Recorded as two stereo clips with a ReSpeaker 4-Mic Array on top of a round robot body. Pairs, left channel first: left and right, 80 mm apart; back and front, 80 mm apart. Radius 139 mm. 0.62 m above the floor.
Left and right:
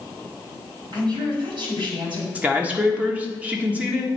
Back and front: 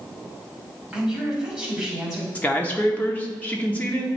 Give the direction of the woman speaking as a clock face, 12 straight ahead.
3 o'clock.